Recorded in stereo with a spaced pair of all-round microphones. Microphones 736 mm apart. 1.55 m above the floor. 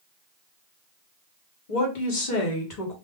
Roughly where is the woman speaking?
Left.